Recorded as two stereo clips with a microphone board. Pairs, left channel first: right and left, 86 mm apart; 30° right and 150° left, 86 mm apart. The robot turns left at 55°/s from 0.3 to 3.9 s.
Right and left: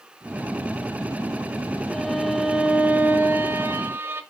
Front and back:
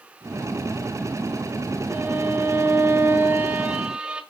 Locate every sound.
1.9 s a violin: 160° right, 1.0 m; by 4.2 s 90° left, 1.0 m